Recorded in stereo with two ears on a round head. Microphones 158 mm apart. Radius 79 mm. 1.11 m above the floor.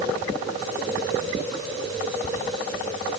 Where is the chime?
I don't hear a chime.